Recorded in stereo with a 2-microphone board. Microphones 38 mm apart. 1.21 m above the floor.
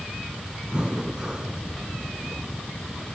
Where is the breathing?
25° right (ahead or behind), 2 m.